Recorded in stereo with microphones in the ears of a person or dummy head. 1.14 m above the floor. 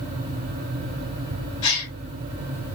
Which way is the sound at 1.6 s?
85° left.